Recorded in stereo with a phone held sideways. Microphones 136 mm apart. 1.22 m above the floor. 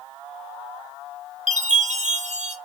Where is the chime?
60° right (ahead or behind), 1.3 m.